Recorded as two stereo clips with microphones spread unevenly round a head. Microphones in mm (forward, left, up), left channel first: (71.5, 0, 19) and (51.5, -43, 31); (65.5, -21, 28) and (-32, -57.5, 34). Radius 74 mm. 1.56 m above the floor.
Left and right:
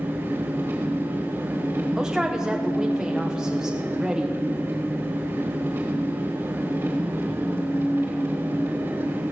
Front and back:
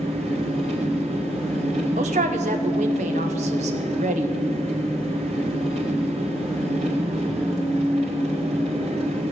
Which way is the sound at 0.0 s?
155° right.